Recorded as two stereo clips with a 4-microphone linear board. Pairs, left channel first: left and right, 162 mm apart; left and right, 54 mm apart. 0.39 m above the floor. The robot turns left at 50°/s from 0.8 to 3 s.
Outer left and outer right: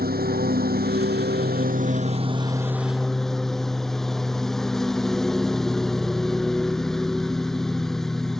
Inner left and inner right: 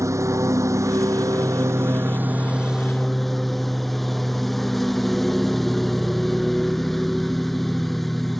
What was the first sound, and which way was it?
A lawn mower, 70° right.